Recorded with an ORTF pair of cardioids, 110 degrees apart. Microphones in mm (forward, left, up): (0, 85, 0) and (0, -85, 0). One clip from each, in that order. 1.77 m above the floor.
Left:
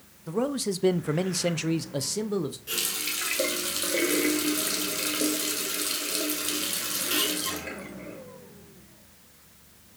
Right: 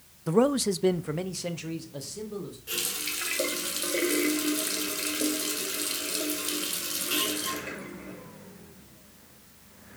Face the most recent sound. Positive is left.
turn(degrees=10)